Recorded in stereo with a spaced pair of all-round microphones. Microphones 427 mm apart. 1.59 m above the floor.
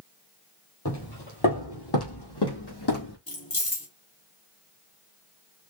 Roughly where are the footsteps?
Left.